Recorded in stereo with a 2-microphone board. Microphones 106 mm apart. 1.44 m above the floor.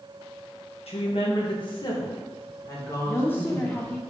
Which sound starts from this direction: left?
A woman speaking, at 0.9 s.